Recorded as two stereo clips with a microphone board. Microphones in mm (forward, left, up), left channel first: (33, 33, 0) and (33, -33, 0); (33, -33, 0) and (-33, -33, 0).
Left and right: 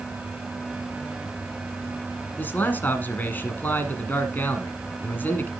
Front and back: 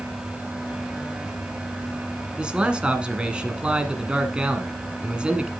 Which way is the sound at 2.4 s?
120° left.